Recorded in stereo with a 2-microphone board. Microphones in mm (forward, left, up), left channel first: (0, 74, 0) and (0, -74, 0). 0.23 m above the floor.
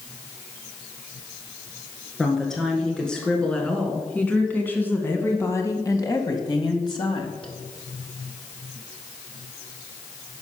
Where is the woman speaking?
5° left (ahead or behind), 3 m; by 7.5 s 35° left (ahead or behind), 1.3 m.